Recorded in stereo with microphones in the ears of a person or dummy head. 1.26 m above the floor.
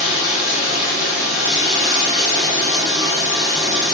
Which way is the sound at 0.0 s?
45° left (ahead or behind).